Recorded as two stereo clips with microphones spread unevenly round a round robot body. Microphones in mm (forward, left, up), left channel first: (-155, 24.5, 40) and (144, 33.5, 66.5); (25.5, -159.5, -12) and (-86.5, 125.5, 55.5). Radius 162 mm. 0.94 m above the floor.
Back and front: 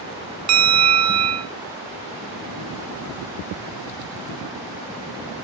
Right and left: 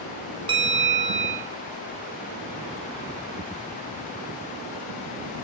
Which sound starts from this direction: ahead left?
A bell, at 0.5 s.